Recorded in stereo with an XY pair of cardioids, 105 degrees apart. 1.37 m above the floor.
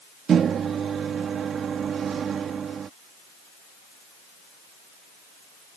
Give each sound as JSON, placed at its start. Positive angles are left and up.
{"t": 0.3, "sound": "a microwave", "azimuth_deg": -50}